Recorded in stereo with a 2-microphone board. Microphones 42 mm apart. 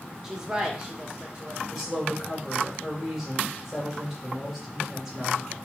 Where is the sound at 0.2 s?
10° right (ahead or behind), 0.9 m; by 1.6 s 25° right (ahead or behind), 1.5 m.